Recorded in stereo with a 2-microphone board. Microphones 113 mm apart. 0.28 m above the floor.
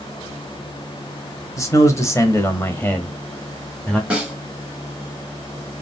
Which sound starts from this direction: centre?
A snare drum, at 4.1 s.